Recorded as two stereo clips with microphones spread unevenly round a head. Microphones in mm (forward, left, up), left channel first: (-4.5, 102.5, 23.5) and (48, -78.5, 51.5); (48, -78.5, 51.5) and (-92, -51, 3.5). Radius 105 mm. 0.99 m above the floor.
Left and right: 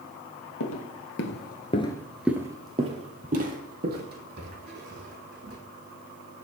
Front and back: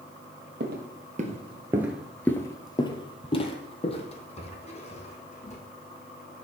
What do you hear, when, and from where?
0.6 s footsteps: 115° left, 1.7 m; by 5.6 s 45° right, 4 m